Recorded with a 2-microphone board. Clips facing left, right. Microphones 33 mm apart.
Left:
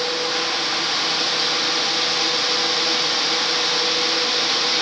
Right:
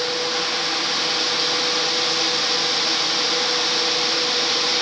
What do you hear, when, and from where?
Only background noise.